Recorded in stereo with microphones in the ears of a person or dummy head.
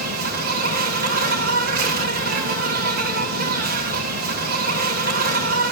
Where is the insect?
45° right (ahead or behind), 3 m.